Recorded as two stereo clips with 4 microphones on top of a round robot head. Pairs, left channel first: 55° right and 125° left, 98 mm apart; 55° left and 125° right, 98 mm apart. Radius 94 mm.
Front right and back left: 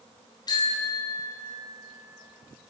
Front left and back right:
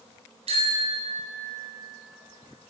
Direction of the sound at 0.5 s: 105° right.